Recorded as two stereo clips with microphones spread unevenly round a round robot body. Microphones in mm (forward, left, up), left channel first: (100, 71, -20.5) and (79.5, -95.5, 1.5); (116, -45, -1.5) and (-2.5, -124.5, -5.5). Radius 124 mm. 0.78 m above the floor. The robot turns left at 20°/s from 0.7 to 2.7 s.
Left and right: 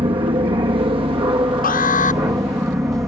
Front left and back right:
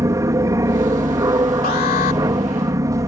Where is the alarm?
65° left; by 2.2 s 50° left.